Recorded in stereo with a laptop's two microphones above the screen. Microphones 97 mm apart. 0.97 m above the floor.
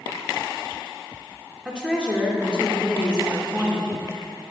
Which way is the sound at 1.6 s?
10° right (ahead or behind).